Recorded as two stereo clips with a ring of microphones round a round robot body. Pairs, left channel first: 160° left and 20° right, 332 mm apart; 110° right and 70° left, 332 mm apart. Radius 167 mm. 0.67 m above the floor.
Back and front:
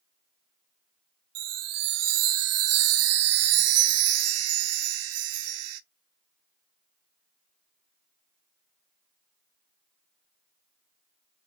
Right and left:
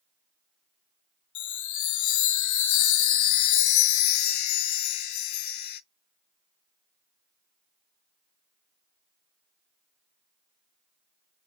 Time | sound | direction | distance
1.4 | a chime | 70° right | 0.8 m